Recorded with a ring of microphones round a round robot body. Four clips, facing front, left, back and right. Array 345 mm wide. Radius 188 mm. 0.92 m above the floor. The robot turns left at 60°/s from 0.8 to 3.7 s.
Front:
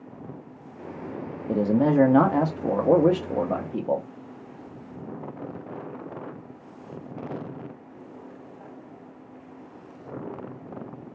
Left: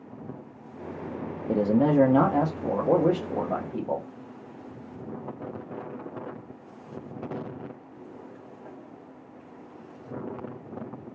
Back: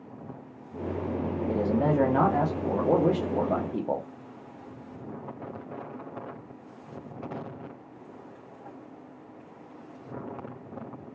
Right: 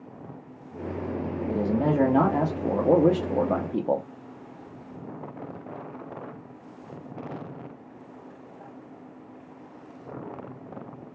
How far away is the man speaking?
About 0.7 m.